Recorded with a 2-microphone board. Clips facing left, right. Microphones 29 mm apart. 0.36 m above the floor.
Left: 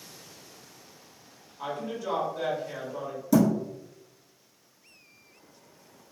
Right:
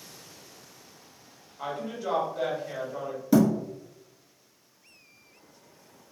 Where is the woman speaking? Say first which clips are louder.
Even; 30° right (ahead or behind), 1.5 m.